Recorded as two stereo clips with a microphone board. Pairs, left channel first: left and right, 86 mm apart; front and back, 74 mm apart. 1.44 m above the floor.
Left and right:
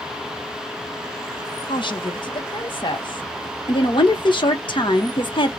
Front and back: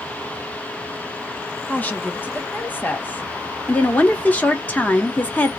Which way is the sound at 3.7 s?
65° left.